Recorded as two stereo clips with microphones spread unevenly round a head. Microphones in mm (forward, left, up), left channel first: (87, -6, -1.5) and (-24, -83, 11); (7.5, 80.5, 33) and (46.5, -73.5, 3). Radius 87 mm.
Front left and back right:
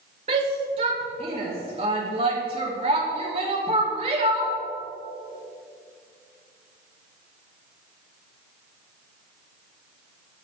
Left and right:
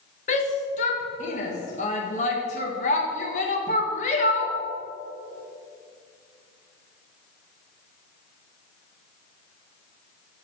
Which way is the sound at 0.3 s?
155° left.